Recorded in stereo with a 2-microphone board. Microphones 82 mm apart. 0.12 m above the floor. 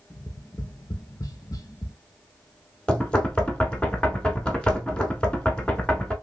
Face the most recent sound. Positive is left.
turn(degrees=15)  # may be behind; listen again after turning